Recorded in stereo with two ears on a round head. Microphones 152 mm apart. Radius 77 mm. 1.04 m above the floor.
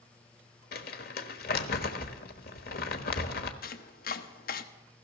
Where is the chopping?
60° left (ahead or behind), 1.1 m.